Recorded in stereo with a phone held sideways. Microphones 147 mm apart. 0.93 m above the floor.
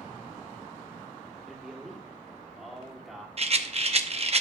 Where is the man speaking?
Centre (ahead or behind), 2.5 m.